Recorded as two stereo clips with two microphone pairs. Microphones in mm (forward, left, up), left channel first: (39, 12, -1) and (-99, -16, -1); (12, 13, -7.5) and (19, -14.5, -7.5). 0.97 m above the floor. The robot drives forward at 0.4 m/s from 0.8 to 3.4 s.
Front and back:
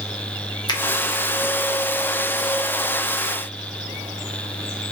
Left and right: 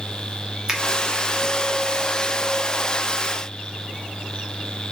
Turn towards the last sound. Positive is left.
turn(degrees=-165)